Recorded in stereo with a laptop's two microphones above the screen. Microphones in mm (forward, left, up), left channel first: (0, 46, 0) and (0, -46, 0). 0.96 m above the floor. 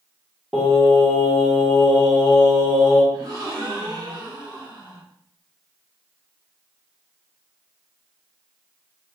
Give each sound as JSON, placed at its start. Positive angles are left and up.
{"t": 0.5, "sound": "singing", "side_deg": -5, "distance_m": 1.3}
{"t": 3.1, "sound": "a gasp", "side_deg": -40, "distance_m": 1.3}